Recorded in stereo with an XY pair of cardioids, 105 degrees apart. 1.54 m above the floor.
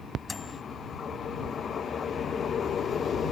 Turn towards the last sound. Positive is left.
turn(degrees=35)